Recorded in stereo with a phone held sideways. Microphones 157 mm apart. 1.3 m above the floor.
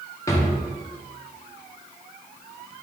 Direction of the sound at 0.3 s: 20° left (ahead or behind).